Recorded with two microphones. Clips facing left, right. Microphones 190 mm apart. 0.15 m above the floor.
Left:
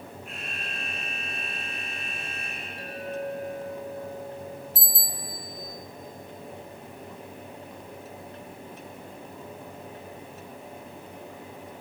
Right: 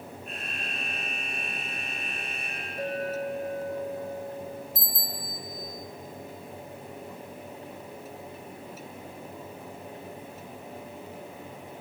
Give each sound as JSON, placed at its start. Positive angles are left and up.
{"t": 0.2, "sound": "an alarm", "side_deg": -35, "distance_m": 9.0}
{"t": 2.8, "sound": "a clink", "side_deg": -45, "distance_m": 5.0}
{"t": 4.8, "sound": "a bicycle bell", "side_deg": 35, "distance_m": 3.0}